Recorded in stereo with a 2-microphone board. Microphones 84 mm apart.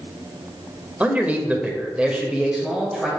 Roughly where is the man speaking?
Centre.